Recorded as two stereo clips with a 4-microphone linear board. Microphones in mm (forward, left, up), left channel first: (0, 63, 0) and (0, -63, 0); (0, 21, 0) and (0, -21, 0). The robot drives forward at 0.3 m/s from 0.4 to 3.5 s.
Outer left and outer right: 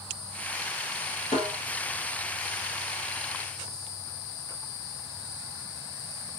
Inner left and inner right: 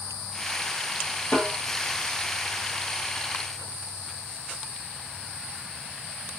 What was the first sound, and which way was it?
A snare drum, 75° left (ahead or behind).